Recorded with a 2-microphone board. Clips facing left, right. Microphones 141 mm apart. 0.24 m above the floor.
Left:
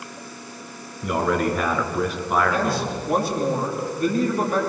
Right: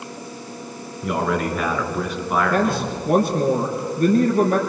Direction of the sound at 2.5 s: 55° right (ahead or behind).